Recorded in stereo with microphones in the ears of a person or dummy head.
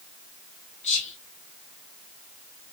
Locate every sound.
0.8 s whispering: 40° left (ahead or behind), 0.6 m